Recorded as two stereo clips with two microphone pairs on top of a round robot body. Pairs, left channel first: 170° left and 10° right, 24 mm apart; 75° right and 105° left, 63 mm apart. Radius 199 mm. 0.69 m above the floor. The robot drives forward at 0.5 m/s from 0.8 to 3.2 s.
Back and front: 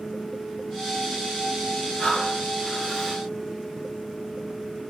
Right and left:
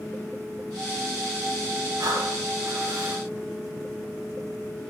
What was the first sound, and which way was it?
Breathing, 120° left.